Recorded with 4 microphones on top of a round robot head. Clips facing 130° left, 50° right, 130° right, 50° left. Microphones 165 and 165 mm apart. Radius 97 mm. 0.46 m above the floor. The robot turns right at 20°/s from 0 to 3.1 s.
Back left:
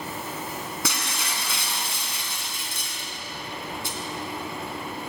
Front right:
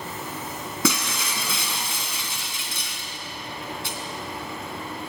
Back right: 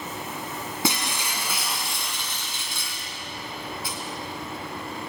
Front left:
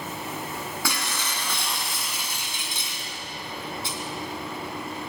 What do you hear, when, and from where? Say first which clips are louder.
0.8 s breaking glass: front right 6 dB, back right 7 dB; 60° right, 2.5 m; by 4.0 s 15° right, 2.5 m